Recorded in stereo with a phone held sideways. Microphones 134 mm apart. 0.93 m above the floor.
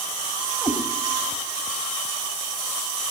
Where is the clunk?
No clunk in this recording.